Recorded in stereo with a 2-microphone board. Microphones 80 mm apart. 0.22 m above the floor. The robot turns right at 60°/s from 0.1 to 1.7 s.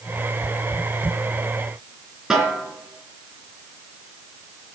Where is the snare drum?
5° right (ahead or behind), 3 m.